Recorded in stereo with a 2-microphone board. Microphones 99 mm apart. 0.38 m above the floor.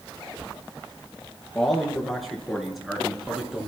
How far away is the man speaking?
About 6.5 m.